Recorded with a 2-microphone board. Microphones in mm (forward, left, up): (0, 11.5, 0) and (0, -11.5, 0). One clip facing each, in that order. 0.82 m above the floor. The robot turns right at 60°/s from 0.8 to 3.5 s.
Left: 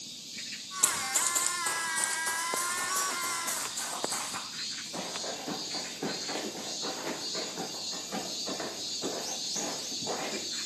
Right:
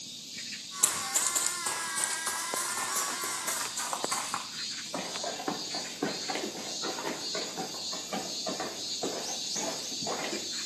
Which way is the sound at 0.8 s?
10° left (ahead or behind).